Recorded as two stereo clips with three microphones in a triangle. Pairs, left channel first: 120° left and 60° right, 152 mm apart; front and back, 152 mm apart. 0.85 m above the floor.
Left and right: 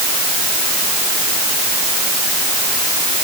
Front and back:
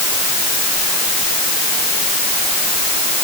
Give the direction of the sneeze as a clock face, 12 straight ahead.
I don't hear a sneeze.